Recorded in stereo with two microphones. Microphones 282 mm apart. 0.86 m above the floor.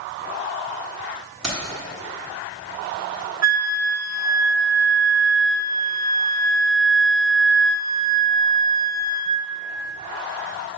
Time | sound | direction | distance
1.4 | keys jangling | 60° right (ahead or behind) | 1.2 m
3.4 | a flute | 65° right (ahead or behind) | 0.6 m